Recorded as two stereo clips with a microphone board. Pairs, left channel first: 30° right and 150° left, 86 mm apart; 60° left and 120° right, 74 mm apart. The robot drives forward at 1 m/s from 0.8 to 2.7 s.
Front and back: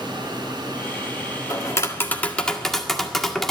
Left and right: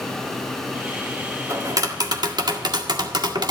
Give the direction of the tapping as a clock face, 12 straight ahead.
3 o'clock.